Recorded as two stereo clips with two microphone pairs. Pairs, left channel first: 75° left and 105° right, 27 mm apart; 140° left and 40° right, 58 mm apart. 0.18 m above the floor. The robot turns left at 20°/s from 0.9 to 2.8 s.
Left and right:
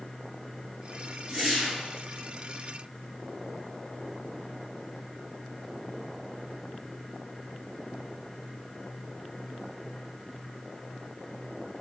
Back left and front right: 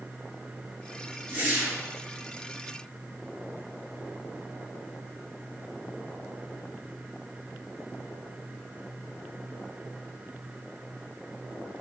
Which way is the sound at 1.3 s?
50° right.